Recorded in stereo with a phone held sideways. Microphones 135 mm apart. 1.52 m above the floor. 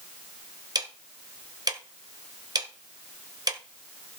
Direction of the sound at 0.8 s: 30° right (ahead or behind).